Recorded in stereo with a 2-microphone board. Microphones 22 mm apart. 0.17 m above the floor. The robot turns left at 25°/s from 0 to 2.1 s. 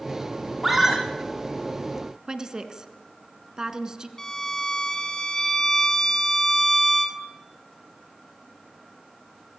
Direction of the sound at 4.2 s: 25° left (ahead or behind).